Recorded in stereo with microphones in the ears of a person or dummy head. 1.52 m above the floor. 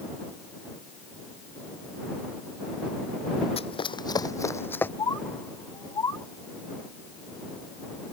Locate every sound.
3.6 s running footsteps: 30° left (ahead or behind); by 4.9 s 10° left (ahead or behind)
5.0 s a bird: 20° left (ahead or behind)